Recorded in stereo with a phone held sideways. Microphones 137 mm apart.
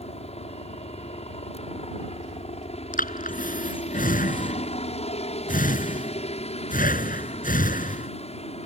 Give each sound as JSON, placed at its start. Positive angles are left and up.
{"t": 0.0, "sound": "a helicopter", "side_deg": 50}
{"t": 2.9, "sound": "breathing", "side_deg": 90}